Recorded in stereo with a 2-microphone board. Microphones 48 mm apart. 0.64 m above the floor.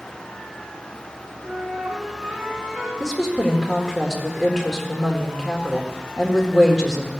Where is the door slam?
I don't hear a door slam.